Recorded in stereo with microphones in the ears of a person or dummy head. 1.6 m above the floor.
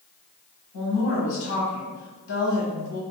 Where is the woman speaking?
70° left (ahead or behind), 1.2 m.